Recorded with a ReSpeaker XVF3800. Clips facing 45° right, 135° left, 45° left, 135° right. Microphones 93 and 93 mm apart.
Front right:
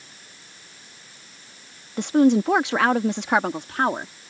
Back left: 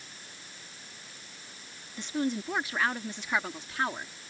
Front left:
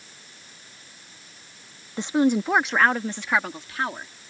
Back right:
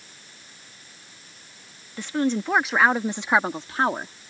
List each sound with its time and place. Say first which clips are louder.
2.0 s a woman speaking: front right 14 dB, front left 3 dB; 20° right; by 4.1 s 85° right